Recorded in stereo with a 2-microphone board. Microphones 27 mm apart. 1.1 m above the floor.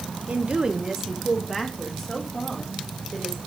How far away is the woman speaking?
About 1.0 m.